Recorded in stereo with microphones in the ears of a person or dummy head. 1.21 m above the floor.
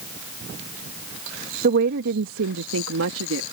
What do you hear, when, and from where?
1.6 s a woman speaking: 55° right (ahead or behind); by 3.4 s 75° right (ahead or behind)